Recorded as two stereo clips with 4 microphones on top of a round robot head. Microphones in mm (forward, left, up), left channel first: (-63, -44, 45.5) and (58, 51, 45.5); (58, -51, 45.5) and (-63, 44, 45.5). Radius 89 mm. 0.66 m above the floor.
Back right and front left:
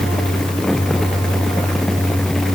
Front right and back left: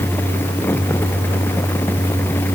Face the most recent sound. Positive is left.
No sound to turn to.